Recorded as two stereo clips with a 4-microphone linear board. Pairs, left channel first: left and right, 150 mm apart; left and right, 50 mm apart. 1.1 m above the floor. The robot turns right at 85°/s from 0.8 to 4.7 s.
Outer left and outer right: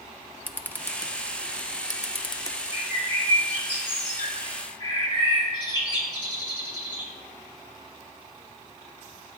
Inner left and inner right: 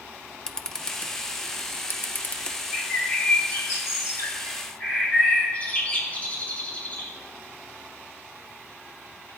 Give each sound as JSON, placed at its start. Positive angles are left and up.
{"t": 0.5, "sound": "a camera shutter", "side_deg": 10, "distance_m": 0.5}
{"t": 2.7, "sound": "a bird", "azimuth_deg": -20, "distance_m": 3.0}